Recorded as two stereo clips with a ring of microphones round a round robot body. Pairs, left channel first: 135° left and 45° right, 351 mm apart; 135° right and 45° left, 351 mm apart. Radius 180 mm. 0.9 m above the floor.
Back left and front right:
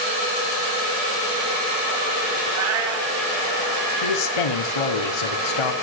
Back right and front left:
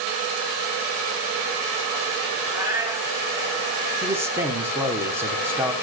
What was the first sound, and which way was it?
A cat meowing, 40° right.